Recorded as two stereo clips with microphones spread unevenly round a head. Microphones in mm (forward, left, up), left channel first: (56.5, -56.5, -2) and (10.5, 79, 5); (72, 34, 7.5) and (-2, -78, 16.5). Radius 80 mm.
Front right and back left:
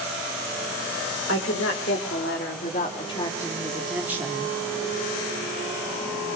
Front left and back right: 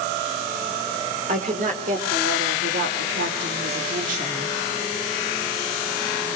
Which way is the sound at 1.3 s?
85° right.